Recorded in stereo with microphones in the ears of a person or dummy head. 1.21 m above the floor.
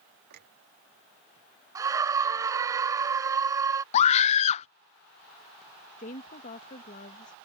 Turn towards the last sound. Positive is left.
turn(degrees=40)  # may be behind; listen again after turning